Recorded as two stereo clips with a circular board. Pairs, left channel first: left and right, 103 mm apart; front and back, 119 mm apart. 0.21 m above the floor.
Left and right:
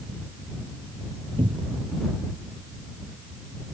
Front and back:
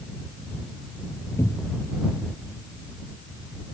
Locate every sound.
1.4 s a cupboard door: 65° right